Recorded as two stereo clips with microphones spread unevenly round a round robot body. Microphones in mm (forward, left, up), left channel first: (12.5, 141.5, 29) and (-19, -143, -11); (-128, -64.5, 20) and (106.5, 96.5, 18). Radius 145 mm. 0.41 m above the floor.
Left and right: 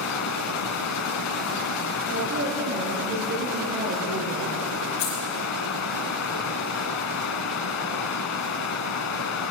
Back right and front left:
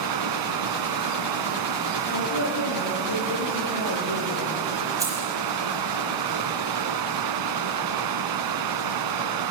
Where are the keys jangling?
115° left, 8.5 m.